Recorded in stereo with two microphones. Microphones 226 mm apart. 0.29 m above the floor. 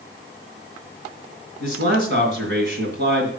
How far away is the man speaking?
About 2.5 m.